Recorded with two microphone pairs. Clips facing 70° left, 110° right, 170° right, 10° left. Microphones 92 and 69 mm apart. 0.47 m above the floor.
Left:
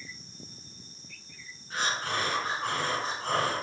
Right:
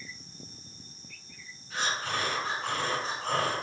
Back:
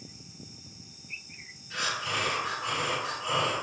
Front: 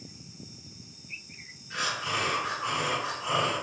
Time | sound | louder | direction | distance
1.7 | breathing | left 1 dB, front 1 dB | 80° left | 1.6 m